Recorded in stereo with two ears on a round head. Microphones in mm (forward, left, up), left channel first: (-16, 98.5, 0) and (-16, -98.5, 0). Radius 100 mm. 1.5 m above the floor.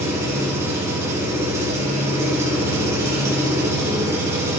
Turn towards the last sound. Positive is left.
turn(degrees=-15)  # may be behind; listen again after turning